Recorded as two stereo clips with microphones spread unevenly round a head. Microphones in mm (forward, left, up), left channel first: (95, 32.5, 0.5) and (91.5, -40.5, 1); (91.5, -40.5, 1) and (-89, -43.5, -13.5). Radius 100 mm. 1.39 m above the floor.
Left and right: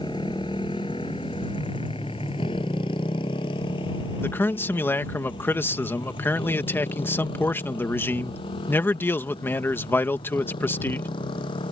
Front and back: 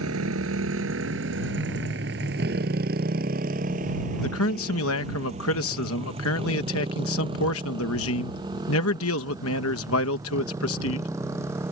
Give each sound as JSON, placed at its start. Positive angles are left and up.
{"t": 0.0, "sound": "a motorcycle", "azimuth_deg": 155}
{"t": 4.2, "sound": "a man speaking", "azimuth_deg": 25}